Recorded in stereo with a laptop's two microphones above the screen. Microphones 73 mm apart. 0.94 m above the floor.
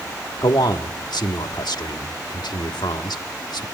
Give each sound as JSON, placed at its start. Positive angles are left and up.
{"t": 0.4, "sound": "a man speaking", "side_deg": 80, "distance_m": 1.5}